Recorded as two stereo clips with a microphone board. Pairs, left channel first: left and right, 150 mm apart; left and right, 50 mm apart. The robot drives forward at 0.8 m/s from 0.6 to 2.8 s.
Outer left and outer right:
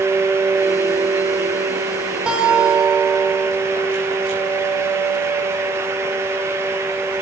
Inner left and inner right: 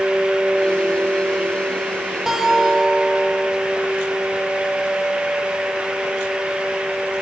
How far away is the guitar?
About 1.1 m.